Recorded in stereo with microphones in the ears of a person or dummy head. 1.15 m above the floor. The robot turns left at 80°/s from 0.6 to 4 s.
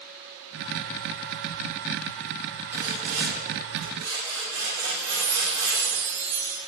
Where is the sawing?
10° right, 2 m; by 5.8 s 115° right, 2 m.